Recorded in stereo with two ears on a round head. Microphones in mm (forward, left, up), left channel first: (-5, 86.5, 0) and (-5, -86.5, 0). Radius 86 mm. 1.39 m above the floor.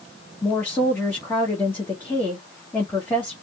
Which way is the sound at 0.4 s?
10° left (ahead or behind).